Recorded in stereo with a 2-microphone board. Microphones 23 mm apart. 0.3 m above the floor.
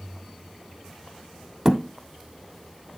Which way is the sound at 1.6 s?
35° right (ahead or behind).